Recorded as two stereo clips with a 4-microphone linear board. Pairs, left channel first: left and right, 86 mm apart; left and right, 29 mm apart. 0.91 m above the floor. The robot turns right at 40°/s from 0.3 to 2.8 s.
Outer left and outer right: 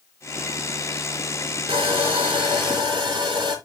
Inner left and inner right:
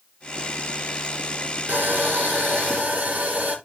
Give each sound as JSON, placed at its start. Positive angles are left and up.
{"t": 1.7, "sound": "sawing", "azimuth_deg": -100, "distance_m": 5.0}